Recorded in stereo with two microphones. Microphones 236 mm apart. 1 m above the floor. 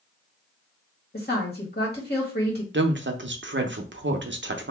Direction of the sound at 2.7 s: 50° right (ahead or behind).